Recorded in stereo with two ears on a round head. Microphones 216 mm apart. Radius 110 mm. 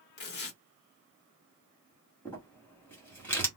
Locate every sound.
0.2 s tearing paper: 45° left (ahead or behind), 0.8 m
2.2 s crumpling: 10° left (ahead or behind), 1.4 m